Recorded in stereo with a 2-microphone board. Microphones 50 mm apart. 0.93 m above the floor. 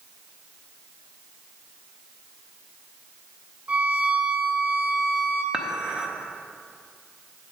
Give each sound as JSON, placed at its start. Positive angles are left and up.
{"t": 3.7, "sound": "a violin", "side_deg": -35, "distance_m": 0.8}
{"t": 5.5, "sound": "dishes clattering", "side_deg": -20, "distance_m": 0.8}